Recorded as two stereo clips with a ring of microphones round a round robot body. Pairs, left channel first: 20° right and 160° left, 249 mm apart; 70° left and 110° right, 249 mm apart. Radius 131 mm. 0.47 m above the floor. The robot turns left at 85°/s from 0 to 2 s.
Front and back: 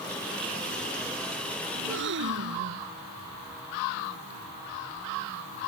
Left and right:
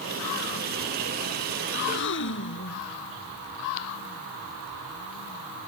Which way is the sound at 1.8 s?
135° left.